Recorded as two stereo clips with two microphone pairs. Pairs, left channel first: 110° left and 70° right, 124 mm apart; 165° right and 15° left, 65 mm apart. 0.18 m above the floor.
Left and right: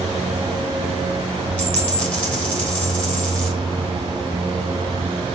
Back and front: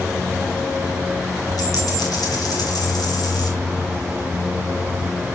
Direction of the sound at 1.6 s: 170° right.